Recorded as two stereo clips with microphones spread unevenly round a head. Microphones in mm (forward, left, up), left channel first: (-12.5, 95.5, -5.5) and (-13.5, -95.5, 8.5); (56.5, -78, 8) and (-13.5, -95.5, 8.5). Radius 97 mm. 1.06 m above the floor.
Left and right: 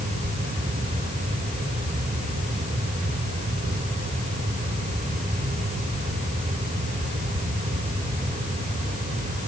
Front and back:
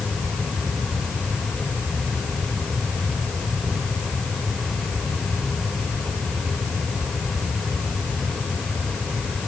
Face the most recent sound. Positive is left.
No sound to turn to.